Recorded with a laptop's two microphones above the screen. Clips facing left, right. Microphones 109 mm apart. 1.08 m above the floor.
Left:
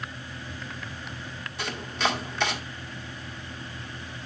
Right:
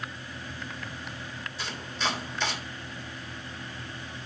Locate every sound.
1.6 s chopping: 60° left (ahead or behind), 2.0 m